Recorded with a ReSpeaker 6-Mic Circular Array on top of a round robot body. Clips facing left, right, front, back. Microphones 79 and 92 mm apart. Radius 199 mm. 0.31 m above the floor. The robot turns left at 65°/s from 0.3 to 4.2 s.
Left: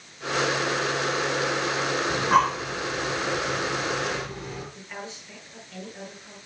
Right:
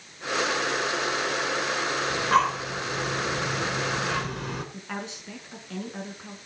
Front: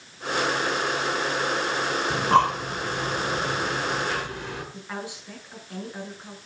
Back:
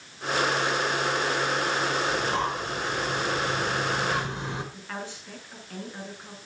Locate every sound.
2.1 s breathing: 25° left, 6 m; by 4.6 s 110° right, 6 m
4.7 s a woman speaking: 80° right, 6 m